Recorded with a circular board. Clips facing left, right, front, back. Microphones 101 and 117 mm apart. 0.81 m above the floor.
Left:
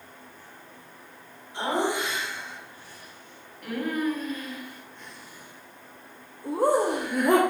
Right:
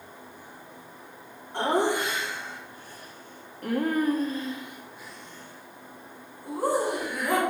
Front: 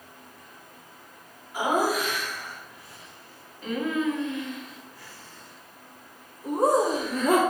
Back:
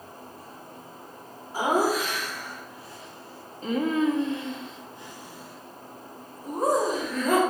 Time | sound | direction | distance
1.5 | laughter | 125° right | 3 m